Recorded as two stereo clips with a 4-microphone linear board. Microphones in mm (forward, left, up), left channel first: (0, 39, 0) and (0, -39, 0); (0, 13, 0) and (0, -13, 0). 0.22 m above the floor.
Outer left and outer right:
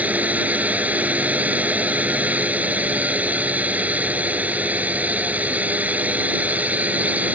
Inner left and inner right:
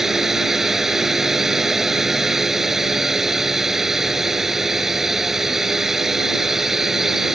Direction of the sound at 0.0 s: 20° right (ahead or behind).